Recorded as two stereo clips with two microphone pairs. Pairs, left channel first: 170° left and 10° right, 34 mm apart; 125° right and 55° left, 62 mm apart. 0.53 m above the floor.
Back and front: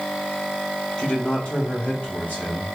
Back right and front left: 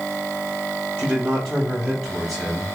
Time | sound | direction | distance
1.0 | a man speaking | 125° left | 2 m